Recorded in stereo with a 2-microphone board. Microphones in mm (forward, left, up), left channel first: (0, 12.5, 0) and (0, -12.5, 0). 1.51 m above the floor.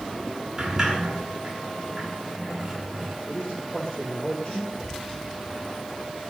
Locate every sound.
0.6 s a sliding door: 10° right (ahead or behind), 9 m
3.3 s a man speaking: 40° left (ahead or behind), 8.5 m